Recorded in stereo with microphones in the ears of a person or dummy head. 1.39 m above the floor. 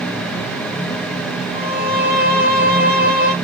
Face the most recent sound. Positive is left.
turn(degrees=40)  # may be behind; listen again after turning